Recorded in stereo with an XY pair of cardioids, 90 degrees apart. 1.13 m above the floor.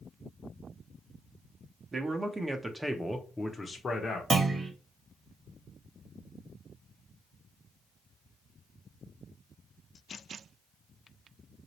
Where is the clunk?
40° right, 1.3 m.